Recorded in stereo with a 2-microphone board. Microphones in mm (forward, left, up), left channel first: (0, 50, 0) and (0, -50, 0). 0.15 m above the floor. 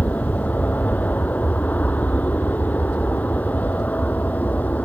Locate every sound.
0.0 s an aircraft: 15° left (ahead or behind)